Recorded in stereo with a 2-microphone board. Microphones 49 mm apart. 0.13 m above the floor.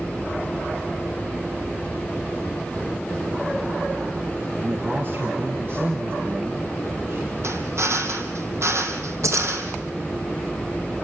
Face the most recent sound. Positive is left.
turn(degrees=-75)  # may be behind; listen again after turning